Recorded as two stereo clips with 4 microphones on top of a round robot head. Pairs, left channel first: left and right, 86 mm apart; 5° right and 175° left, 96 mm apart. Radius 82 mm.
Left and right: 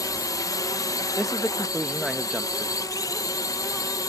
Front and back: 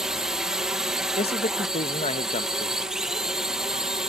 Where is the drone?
95° left.